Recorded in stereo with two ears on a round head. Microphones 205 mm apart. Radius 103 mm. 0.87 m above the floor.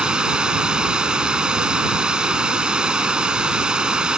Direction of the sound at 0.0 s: 5° right (ahead or behind).